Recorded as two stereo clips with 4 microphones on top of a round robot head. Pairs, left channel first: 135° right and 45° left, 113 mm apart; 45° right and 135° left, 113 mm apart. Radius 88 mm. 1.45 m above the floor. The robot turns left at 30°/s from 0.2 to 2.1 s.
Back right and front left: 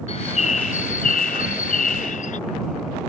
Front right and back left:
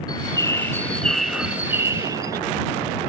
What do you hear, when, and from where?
0.1 s a bird: 100° right; by 2.4 s 160° right